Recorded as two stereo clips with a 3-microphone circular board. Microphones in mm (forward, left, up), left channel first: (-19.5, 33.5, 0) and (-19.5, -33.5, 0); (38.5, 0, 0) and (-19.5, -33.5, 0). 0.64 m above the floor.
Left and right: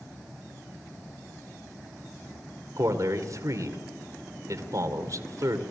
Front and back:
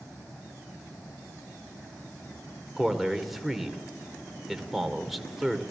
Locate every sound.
2.8 s a man speaking: 65° right, 2 m